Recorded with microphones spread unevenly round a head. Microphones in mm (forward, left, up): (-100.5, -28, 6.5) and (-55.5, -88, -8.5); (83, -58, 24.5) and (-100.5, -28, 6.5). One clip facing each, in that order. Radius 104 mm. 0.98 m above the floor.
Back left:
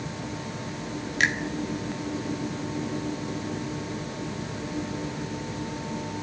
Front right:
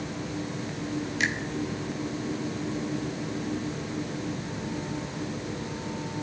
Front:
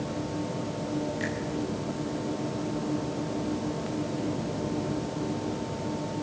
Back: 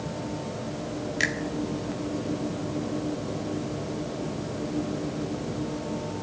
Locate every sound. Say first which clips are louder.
1.2 s a finger snap: back left 5 dB, even; 160° left, 1.8 m